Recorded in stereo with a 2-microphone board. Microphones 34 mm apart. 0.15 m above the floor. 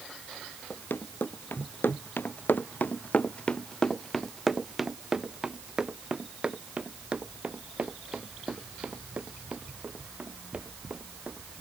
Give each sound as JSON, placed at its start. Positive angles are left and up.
{"t": 0.7, "sound": "running footsteps", "side_deg": 80}